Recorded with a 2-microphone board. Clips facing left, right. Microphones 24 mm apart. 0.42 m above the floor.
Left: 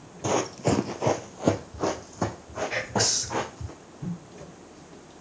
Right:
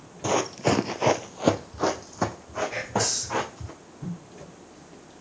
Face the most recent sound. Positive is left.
turn(degrees=40)  # may be behind; listen again after turning